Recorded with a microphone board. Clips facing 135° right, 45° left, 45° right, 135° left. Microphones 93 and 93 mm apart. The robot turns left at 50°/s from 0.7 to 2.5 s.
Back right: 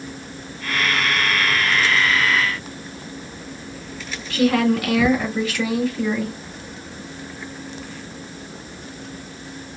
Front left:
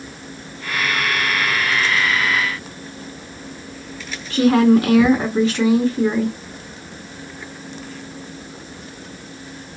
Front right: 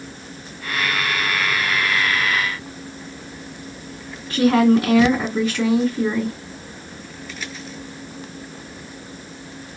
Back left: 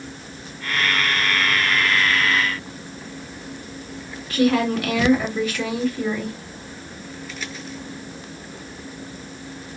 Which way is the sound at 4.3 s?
Straight ahead.